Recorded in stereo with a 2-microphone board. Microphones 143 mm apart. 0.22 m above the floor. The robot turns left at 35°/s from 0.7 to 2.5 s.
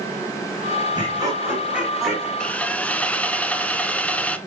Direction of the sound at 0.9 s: 140° right.